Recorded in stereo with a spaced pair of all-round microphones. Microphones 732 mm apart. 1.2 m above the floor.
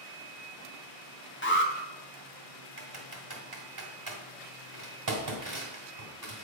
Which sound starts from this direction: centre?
An alarm, at 1.4 s.